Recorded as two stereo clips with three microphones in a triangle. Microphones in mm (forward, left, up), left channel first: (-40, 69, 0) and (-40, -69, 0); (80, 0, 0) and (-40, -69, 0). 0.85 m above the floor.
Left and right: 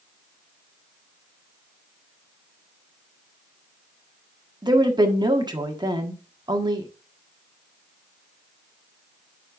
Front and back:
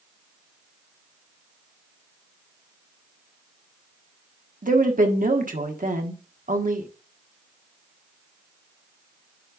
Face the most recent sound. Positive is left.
turn(degrees=-150)